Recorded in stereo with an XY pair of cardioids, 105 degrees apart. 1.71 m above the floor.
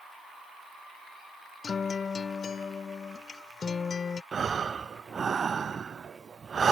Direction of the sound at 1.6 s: 40° left.